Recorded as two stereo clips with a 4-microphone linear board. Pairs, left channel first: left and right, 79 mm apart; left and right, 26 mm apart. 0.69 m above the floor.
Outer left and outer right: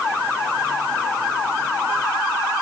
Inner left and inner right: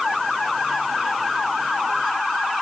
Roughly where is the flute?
I don't hear a flute.